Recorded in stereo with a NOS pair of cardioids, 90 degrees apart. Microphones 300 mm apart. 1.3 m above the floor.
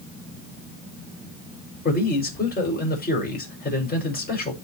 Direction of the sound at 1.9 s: 30° left.